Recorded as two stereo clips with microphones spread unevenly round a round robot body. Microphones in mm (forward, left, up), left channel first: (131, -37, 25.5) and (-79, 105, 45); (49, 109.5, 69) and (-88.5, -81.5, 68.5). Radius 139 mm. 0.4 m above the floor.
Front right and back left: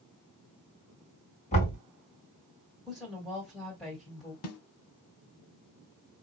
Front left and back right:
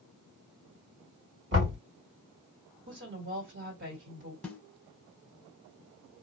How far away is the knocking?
About 2.5 m.